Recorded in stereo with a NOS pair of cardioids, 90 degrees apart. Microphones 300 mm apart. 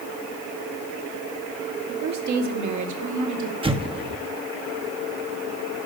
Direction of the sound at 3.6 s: 20° right.